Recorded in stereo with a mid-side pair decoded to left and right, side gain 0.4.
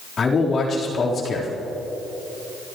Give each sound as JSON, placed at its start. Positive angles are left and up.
{"t": 0.2, "sound": "a man speaking", "azimuth_deg": 50, "distance_m": 4.0}